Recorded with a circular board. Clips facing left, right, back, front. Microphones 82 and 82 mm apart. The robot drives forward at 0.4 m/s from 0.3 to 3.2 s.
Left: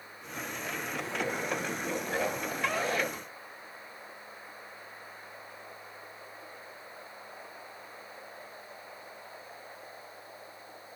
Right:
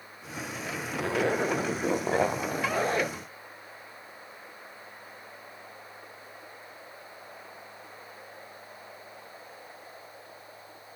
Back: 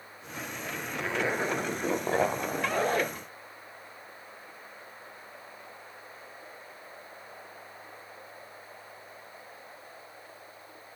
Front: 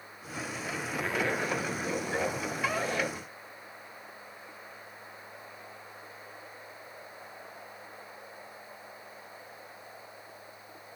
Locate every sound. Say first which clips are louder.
0.9 s a zipper: right 9 dB, back 1 dB; 85° right, 0.5 m; by 3.1 s 150° right, 1.0 m